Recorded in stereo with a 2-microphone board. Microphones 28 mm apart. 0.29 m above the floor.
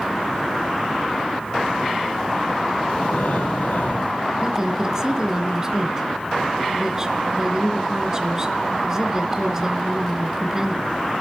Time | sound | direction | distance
2.9 | breathing | 70° left (ahead or behind) | 6 m
4.4 | a woman speaking | 20° right (ahead or behind) | 3.5 m